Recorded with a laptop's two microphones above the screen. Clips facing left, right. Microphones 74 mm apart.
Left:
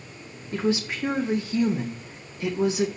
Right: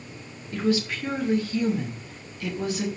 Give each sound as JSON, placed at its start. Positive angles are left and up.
{"t": 0.5, "sound": "a woman speaking", "side_deg": 25, "distance_m": 1.8}